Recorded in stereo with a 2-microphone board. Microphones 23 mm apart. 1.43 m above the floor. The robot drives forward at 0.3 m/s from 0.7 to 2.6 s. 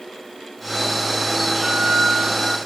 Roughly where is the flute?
Right.